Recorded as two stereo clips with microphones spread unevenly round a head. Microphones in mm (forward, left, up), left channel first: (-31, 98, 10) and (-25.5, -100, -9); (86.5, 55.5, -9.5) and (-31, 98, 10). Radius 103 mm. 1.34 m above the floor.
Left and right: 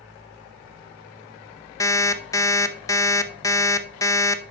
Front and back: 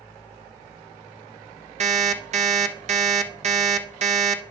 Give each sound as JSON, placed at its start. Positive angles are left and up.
{"t": 1.8, "sound": "an alarm clock", "azimuth_deg": 160, "distance_m": 0.8}